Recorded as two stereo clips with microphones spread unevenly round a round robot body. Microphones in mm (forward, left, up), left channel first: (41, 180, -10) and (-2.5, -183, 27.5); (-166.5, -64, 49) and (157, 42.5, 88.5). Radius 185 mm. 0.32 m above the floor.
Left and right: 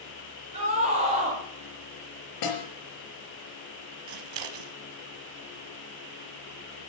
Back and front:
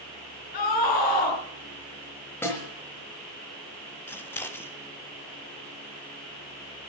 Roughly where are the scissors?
Right.